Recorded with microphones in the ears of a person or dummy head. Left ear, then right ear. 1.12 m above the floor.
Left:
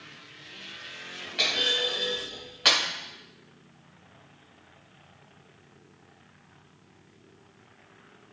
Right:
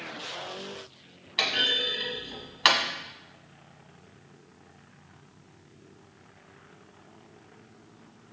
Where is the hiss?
I don't hear a hiss.